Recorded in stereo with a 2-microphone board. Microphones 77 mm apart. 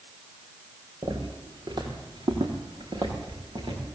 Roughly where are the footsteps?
Right.